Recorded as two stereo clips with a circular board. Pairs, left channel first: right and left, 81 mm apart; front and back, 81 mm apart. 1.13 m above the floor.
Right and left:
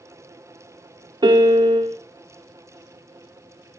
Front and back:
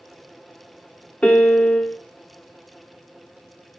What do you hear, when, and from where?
1.2 s a piano: 75° left, 0.6 m